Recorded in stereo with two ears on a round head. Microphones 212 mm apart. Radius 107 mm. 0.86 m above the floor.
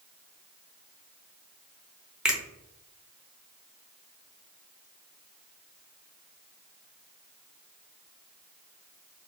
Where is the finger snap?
5° right (ahead or behind), 0.7 m.